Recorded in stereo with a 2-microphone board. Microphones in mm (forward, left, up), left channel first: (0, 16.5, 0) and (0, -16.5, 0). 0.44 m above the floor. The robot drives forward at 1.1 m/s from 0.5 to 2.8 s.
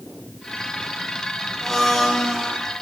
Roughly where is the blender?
Centre.